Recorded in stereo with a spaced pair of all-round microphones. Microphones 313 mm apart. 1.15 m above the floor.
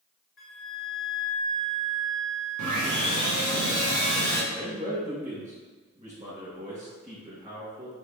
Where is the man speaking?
25° right (ahead or behind), 2.0 m.